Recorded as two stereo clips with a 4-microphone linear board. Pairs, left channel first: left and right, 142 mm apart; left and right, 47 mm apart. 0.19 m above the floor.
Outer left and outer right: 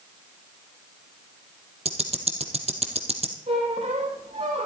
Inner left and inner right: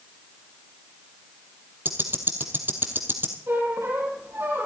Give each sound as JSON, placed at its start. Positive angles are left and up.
{"t": 1.9, "sound": "ticking", "side_deg": -45, "distance_m": 1.5}
{"t": 3.5, "sound": "a squeak", "side_deg": -45, "distance_m": 4.0}